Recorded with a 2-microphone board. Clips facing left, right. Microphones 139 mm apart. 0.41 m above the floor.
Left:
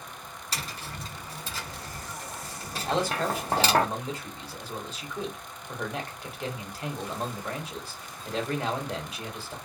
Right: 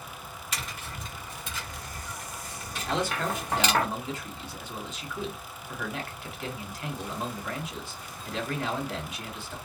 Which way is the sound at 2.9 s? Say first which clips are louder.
Left 2 dB; 35° left (ahead or behind).